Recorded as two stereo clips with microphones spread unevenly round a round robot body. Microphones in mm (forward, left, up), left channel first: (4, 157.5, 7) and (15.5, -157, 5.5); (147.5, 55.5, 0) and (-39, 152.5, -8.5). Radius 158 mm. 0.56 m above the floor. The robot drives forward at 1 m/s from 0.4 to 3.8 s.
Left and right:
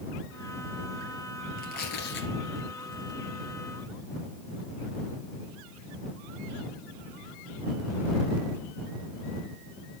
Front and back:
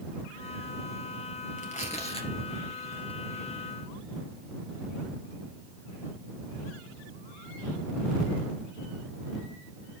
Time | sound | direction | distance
1.6 | tearing paper | 30° left | 3 m